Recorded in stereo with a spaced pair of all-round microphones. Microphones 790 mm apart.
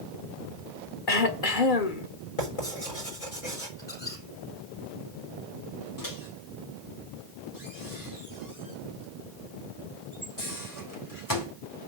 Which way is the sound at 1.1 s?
70° left (ahead or behind).